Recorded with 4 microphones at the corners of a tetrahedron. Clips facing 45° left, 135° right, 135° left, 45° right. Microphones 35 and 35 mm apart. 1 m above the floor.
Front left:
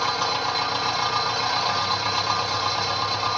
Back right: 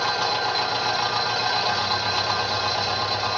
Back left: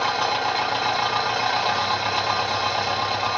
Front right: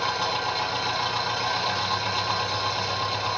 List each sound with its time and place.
0.0 s an engine running: 145° left, 1.9 m